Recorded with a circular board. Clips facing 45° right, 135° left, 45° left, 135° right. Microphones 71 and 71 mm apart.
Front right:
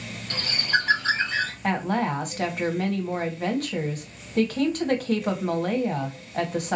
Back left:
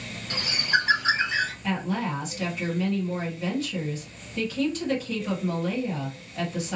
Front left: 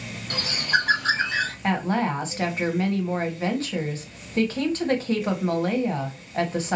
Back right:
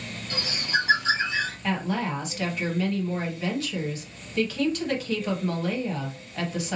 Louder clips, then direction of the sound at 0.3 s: Even, front left 4 dB; 60° left.